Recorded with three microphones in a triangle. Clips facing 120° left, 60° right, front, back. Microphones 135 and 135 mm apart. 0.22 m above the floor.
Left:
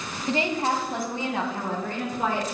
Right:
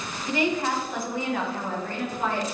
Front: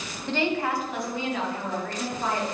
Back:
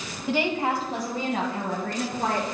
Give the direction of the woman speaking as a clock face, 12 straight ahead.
9 o'clock.